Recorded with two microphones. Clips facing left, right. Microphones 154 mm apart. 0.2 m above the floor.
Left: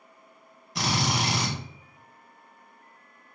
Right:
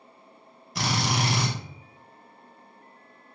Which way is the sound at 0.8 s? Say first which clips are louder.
Even; centre (ahead or behind).